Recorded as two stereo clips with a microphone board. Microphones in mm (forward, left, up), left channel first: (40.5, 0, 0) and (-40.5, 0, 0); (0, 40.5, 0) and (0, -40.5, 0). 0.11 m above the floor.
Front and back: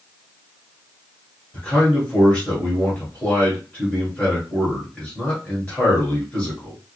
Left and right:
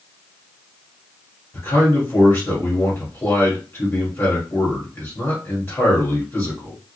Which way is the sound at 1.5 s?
60° left.